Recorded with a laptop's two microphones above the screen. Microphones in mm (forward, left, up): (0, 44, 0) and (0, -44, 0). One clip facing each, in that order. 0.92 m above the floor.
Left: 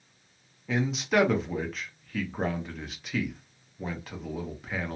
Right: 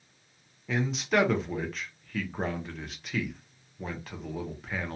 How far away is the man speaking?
About 0.6 m.